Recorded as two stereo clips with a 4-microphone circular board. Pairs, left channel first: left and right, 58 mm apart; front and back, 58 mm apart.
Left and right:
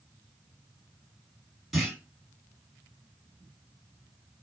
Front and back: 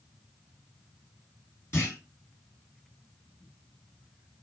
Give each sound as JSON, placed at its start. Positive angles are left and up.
{"t": 1.7, "sound": "a clunk", "azimuth_deg": -5, "distance_m": 2.0}